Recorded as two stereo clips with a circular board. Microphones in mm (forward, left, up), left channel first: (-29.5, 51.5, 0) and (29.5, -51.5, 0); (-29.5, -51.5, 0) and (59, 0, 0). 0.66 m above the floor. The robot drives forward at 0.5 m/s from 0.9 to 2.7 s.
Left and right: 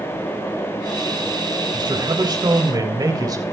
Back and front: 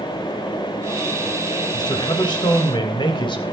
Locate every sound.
1.7 s a man speaking: 105° right, 3 m; by 3.4 s 115° right, 3.5 m